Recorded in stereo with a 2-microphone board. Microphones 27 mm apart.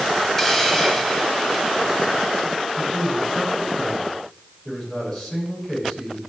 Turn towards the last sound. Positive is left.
turn(degrees=25)  # may be behind; listen again after turning